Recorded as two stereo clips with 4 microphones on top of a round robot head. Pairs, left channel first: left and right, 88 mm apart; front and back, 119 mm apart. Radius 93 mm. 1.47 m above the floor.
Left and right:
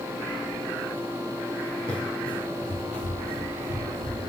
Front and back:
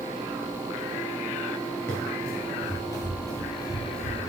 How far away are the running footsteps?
About 1.7 m.